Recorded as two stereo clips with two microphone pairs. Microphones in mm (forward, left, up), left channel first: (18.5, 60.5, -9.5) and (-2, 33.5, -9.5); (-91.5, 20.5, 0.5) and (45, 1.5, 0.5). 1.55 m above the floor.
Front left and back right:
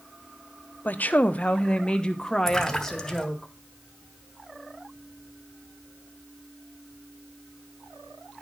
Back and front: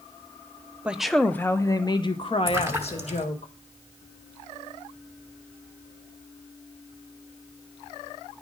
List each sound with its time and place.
0.8 s a woman speaking: 75° left, 0.6 m; by 3.5 s 135° left, 1.5 m
2.5 s a splash: 25° left, 1.2 m